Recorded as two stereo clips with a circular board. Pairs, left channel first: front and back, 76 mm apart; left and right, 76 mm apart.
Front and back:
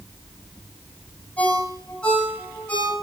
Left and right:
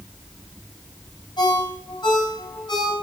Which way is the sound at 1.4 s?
65° left.